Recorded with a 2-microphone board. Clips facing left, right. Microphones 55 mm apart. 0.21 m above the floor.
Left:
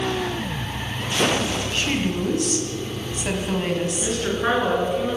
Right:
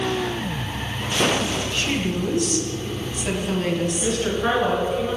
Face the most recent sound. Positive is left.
turn(degrees=15)  # may be behind; listen again after turning